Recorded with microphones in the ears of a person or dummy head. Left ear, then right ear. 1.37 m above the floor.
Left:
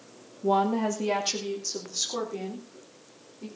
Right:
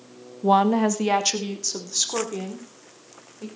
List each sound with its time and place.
0.4 s a woman speaking: 55° right (ahead or behind), 1.3 m; by 3.5 s 65° right (ahead or behind), 5.5 m